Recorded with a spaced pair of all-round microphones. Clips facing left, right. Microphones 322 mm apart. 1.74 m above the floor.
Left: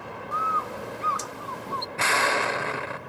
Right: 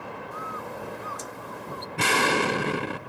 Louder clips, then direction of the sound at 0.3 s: Left 1 dB; 80° left.